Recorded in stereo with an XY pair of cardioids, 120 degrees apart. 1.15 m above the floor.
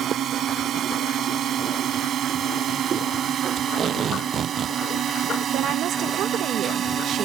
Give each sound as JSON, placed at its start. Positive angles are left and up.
{"t": 0.0, "sound": "a drone", "azimuth_deg": -55}
{"t": 3.6, "sound": "tape being pulled", "azimuth_deg": -45}
{"t": 5.5, "sound": "a woman speaking", "azimuth_deg": -65}